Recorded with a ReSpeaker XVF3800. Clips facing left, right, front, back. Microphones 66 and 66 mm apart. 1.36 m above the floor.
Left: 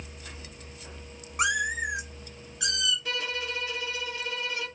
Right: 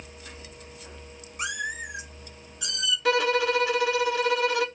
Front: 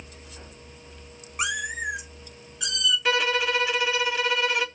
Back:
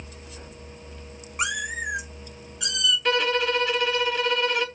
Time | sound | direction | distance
1.4 | a cat meowing | 85° left | 1.5 m
3.0 | a violin | 85° right | 0.9 m